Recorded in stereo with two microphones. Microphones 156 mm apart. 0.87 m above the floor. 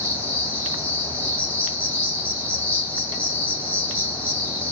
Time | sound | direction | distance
0.0 | an insect | 10° left (ahead or behind) | 2.5 m